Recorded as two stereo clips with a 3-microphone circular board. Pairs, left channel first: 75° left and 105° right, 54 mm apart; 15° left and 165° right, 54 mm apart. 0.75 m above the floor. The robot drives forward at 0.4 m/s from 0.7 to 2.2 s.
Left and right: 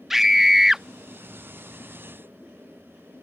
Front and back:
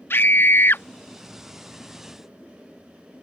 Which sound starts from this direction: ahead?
A scream, at 0.1 s.